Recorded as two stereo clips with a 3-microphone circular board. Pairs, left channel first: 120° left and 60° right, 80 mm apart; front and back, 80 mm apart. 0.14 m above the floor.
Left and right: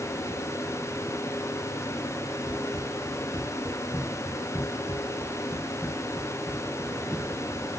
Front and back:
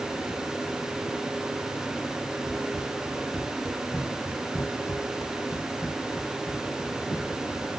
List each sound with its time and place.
2.5 s running footsteps: 95° left, 2.5 m; by 7.7 s 20° left, 3 m